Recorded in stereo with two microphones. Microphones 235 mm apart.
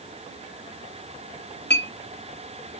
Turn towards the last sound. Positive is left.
turn(degrees=45)  # may be behind; listen again after turning